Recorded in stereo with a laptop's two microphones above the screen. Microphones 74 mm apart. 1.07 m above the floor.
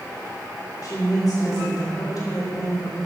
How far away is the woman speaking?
About 2.5 m.